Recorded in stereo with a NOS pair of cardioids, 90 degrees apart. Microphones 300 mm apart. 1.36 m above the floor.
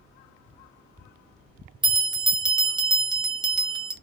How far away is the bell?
About 0.7 m.